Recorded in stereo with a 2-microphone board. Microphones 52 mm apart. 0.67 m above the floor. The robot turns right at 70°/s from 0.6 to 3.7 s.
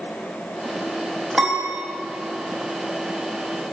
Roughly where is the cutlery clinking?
No cutlery clinking in this recording.